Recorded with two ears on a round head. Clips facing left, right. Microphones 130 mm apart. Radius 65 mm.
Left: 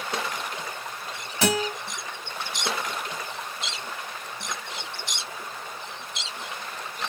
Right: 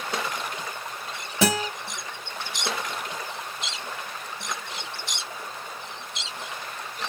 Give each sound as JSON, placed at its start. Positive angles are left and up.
{"t": 1.4, "sound": "a guitar", "side_deg": -75, "distance_m": 2.0}